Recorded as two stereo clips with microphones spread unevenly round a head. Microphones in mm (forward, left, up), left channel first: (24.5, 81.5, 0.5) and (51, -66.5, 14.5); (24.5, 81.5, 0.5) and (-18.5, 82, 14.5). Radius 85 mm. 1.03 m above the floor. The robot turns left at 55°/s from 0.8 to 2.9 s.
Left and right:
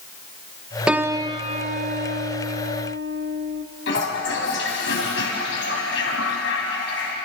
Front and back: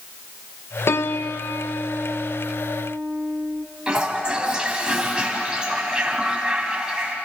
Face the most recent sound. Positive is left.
turn(degrees=115)